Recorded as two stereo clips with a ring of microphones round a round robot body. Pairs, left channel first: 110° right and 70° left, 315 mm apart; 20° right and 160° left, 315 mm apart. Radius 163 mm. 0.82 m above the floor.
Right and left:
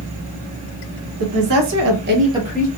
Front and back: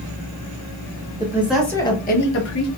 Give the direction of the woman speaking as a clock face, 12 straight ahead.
9 o'clock.